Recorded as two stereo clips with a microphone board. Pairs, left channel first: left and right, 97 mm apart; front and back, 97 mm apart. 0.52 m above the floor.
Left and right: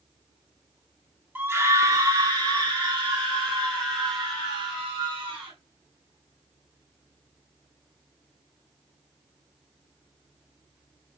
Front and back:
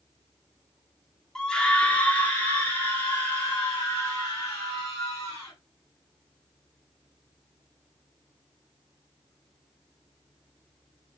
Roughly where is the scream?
Right.